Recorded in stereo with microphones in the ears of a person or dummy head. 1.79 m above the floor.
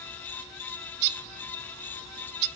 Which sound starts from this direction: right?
A bird, at 1.0 s.